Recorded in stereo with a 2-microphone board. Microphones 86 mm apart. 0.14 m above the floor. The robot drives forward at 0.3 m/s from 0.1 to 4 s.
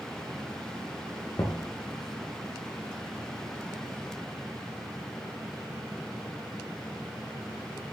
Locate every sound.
1.4 s knocking: 45° left (ahead or behind), 1.9 m